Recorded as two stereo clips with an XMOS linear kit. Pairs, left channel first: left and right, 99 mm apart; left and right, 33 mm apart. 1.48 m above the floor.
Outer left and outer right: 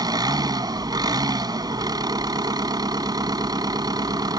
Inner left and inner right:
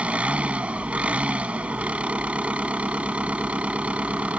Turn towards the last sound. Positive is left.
turn(degrees=-45)  # may be behind; listen again after turning